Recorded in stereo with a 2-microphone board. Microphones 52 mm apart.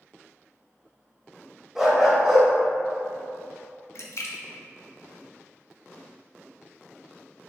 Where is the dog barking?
10° right (ahead or behind), 1.1 m.